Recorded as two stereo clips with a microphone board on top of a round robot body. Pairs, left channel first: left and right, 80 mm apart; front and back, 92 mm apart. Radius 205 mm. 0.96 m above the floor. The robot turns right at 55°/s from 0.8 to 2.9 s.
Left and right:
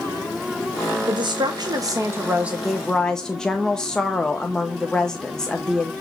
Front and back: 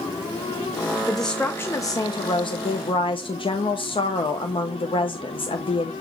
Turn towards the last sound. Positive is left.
turn(degrees=10)